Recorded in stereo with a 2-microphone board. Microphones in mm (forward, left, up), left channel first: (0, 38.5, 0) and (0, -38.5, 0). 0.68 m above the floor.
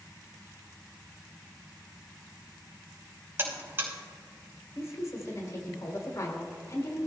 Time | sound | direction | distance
3.4 | a buzzer | 30° right (ahead or behind) | 3 m
4.8 | a woman speaking | 45° left (ahead or behind) | 3 m